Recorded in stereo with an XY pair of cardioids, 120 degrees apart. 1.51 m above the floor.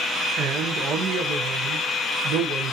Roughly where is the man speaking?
Right.